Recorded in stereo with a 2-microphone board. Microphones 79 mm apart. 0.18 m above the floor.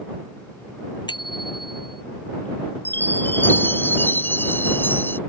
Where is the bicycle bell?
70° left (ahead or behind).